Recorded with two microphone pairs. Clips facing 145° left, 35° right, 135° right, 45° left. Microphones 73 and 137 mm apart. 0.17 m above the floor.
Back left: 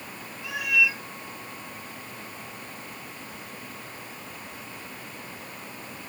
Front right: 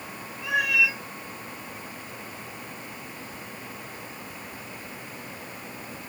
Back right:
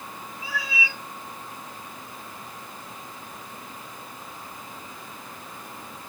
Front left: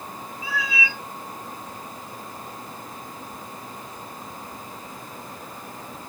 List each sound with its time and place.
0.4 s a cat meowing: 30° right, 4 m